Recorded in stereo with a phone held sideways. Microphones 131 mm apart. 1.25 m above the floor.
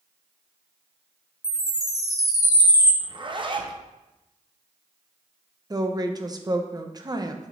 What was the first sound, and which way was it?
A chime, 30° right (ahead or behind).